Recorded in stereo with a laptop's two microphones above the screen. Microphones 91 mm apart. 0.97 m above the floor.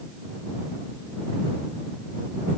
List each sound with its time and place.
Only background noise.